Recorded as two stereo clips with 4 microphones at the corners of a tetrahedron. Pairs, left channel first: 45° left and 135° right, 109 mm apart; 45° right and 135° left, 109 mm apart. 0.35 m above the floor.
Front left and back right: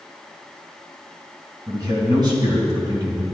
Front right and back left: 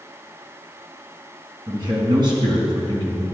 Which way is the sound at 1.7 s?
175° left.